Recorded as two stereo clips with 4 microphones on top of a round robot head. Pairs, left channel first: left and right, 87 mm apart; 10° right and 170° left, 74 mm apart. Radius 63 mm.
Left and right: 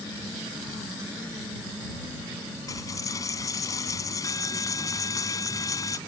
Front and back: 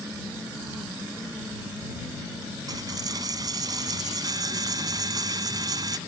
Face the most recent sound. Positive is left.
turn(degrees=140)